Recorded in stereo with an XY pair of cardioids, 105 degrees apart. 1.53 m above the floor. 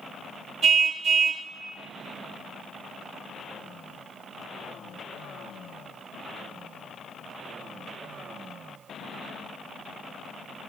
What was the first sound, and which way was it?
A car horn, 60° right.